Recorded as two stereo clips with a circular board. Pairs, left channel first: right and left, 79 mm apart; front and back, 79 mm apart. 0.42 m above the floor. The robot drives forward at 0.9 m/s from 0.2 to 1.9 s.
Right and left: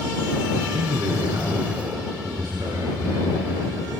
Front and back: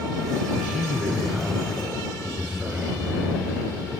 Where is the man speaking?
100° left, 6 m; by 4.0 s 110° left, 6 m.